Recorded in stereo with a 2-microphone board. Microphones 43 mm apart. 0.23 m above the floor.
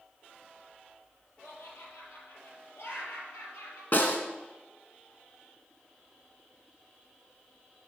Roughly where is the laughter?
Left.